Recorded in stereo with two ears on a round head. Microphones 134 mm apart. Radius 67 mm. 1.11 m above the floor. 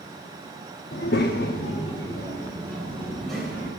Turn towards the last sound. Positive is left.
turn(degrees=0)  # may be behind; listen again after turning